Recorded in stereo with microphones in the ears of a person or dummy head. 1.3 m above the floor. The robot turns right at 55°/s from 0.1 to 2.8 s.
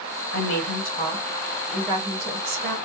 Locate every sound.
0.3 s a woman speaking: 105° left, 1.3 m; by 2.8 s 120° right, 1.3 m